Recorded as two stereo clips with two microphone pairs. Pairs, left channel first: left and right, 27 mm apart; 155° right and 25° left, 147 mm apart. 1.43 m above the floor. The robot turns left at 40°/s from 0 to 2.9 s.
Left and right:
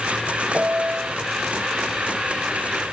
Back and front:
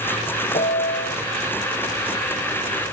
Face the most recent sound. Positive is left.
turn(degrees=140)